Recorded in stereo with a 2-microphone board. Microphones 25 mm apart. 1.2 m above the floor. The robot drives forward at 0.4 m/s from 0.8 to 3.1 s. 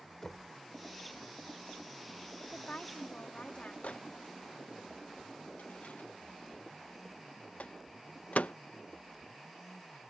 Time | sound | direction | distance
0.2 | knocking | 15° left (ahead or behind) | ?
2.4 | a woman speaking | 50° left (ahead or behind) | ?
3.8 | a microwave | 75° left (ahead or behind) | ?